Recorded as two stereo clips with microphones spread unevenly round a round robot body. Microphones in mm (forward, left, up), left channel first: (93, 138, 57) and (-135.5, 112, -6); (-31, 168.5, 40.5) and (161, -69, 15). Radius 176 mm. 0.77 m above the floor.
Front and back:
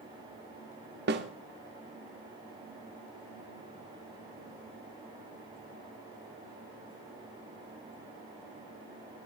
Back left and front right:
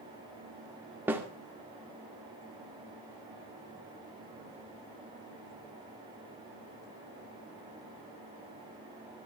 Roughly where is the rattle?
No rattle in this recording.